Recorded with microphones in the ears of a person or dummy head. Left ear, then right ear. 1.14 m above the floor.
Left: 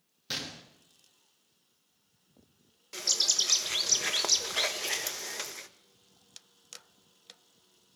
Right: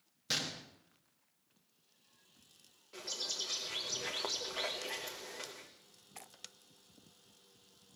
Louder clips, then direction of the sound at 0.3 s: Even; centre (ahead or behind).